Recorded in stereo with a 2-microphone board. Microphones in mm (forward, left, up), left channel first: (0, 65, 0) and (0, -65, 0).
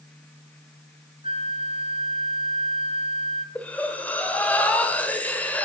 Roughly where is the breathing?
Centre.